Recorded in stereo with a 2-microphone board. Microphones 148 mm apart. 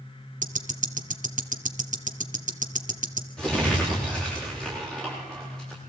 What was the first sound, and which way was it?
Ticking, 55° right (ahead or behind).